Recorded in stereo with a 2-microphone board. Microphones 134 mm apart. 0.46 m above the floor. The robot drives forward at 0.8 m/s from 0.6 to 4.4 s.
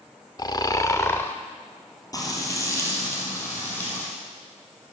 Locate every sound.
0.4 s snoring: 30° left (ahead or behind), 0.6 m; by 1.4 s 15° left (ahead or behind), 1.0 m
2.1 s frying: 30° left (ahead or behind), 2.5 m; by 4.0 s 15° left (ahead or behind), 3.5 m